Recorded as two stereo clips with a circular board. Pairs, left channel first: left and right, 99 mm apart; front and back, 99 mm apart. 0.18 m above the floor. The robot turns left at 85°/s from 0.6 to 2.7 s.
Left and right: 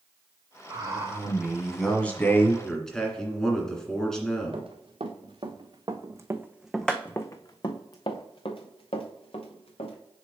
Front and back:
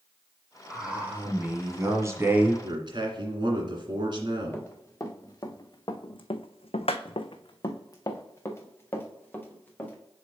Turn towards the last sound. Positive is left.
turn(degrees=75)